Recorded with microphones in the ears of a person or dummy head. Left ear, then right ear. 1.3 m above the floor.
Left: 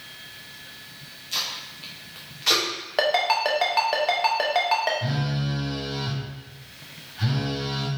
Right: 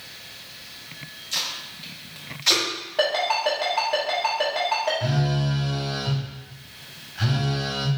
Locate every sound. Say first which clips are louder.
1.3 s tape being pulled: right 1 dB; centre (ahead or behind), 0.7 m
3.0 s a ringtone: left 1 dB; 45° left (ahead or behind), 0.8 m
5.0 s a phone buzzing: right 3 dB; 30° right (ahead or behind), 0.9 m